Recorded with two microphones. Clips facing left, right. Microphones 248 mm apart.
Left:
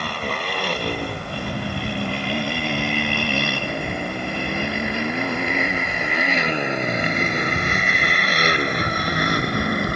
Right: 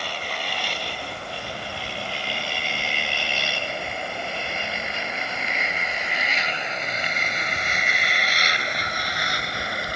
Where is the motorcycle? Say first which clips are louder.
Left 6 dB; 65° left (ahead or behind).